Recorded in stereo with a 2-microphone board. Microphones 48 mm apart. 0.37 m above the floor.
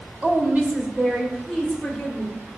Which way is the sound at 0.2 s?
30° right (ahead or behind).